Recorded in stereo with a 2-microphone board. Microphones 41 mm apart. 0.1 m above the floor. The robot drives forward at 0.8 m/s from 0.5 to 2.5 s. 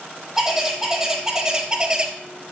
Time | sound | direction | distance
0.4 | a bird | 10° right (ahead or behind) | 2 m